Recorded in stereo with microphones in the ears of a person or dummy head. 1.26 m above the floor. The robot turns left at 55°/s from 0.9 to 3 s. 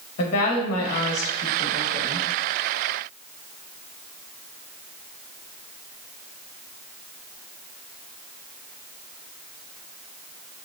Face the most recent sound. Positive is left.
turn(degrees=-5)